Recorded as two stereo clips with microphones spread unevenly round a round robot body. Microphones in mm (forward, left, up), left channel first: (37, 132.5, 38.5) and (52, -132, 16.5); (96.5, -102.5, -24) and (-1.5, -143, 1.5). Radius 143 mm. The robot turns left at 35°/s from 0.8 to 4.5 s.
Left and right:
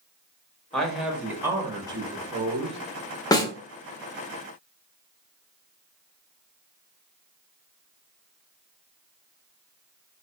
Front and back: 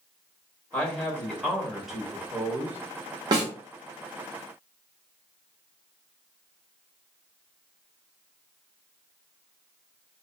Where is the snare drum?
165° left, 0.6 m; by 3.5 s 160° left, 0.6 m.